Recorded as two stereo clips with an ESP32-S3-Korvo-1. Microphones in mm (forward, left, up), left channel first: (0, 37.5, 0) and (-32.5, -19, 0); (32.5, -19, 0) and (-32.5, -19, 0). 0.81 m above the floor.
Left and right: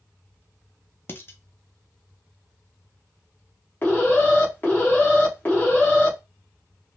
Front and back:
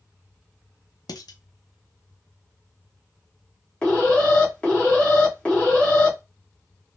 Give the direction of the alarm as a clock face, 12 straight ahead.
10 o'clock.